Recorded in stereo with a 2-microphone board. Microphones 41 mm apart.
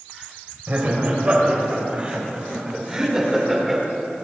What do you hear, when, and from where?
0.7 s laughter: 40° right (ahead or behind), 5 m; by 3.8 s centre (ahead or behind), 3.5 m